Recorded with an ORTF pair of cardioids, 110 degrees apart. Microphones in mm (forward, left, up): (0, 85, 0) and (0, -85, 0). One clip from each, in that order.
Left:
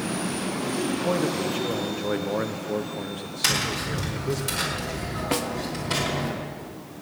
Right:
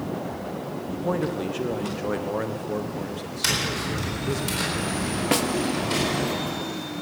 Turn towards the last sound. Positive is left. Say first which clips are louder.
# right 3 dB
turn(degrees=-20)